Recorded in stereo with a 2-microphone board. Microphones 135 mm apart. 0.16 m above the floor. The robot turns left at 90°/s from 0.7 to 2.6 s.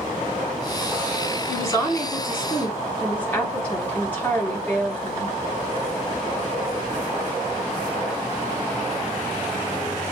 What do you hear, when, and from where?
1.5 s a woman speaking: 15° left (ahead or behind), 1.5 m; by 5.3 s 10° left (ahead or behind), 1.5 m